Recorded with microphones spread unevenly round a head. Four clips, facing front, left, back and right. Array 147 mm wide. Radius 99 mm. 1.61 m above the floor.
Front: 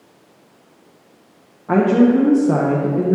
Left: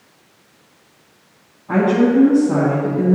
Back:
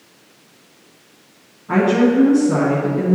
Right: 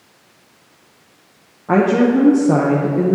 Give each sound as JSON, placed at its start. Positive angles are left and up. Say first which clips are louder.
{"t": 1.7, "sound": "a woman speaking", "louder": "right 1 dB, front 2 dB", "azimuth_deg": -65, "distance_m": 1.1}